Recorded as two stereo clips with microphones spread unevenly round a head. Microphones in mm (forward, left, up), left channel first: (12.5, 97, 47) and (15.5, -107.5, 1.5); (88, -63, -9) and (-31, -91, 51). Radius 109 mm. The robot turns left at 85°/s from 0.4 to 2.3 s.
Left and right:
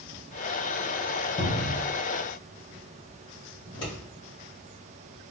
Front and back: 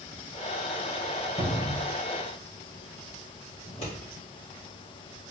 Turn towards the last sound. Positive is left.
turn(degrees=60)